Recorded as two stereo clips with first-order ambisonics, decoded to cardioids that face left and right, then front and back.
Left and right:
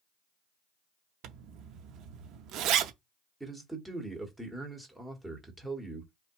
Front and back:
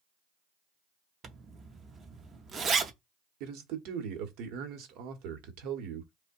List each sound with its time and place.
1.2 s a zipper: 115° right, 0.6 m
3.4 s a man speaking: 175° right, 1.1 m